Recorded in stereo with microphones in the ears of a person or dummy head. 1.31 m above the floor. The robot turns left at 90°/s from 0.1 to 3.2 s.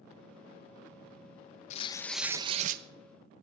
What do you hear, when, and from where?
1.7 s tearing paper: 40° left, 1.0 m; by 2.8 s 60° right, 1.0 m